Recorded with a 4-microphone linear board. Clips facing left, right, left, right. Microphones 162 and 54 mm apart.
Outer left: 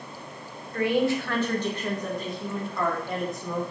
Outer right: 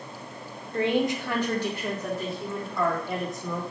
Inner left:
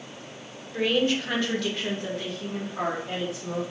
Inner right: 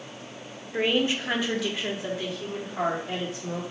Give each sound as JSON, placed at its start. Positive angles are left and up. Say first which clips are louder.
{"t": 0.7, "sound": "a woman speaking", "louder": "outer left 1 dB, inner left 1 dB", "side_deg": -25, "distance_m": 0.5}